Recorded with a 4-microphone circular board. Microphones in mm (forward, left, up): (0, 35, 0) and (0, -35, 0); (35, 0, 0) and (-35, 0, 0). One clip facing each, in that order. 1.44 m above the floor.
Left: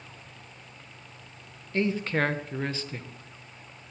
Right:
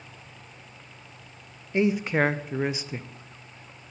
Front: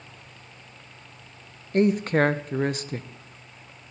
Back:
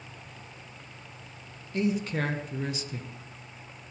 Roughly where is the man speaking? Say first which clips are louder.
Right 3 dB, front 8 dB; ahead.